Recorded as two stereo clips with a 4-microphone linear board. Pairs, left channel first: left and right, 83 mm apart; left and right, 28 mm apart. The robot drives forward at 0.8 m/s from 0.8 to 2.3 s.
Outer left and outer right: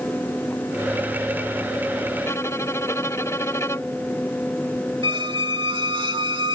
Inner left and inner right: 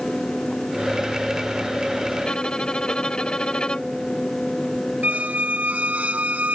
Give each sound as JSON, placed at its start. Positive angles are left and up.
{"t": 2.2, "sound": "a violin", "side_deg": 40}
{"t": 5.0, "sound": "a squeak", "side_deg": -75}